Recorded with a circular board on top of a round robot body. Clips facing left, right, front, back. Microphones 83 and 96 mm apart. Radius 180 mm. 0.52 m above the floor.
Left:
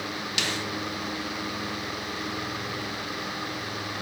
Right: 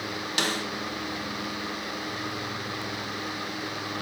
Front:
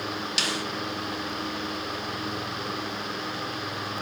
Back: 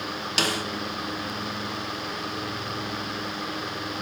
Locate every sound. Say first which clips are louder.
0.4 s a snare drum: right 3 dB, back 7 dB; 140° right, 0.9 m